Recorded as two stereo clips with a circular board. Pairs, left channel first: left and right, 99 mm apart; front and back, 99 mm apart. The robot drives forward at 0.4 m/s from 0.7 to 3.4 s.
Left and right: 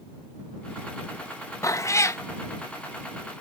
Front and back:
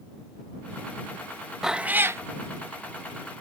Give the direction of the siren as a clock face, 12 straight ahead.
No siren in this recording.